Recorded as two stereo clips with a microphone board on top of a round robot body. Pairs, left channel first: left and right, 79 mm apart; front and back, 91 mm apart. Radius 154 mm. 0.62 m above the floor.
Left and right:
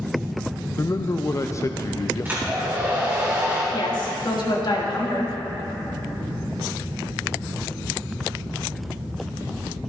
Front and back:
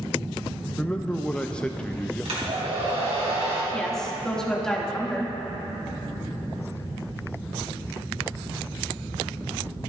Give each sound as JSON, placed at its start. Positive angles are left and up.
{"t": 0.8, "sound": "a man speaking", "azimuth_deg": 75, "distance_m": 0.6}
{"t": 2.2, "sound": "a hair dryer", "azimuth_deg": -160, "distance_m": 2.5}
{"t": 3.7, "sound": "a woman speaking", "azimuth_deg": 85, "distance_m": 2.0}